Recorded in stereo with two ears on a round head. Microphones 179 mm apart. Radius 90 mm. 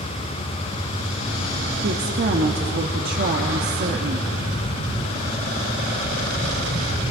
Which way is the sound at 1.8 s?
50° right (ahead or behind).